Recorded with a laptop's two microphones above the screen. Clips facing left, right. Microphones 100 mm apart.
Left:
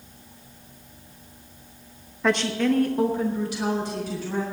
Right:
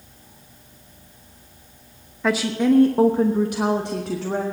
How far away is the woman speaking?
About 0.9 m.